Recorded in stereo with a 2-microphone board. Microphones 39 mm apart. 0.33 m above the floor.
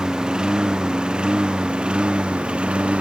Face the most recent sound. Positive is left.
turn(degrees=-30)  # may be behind; listen again after turning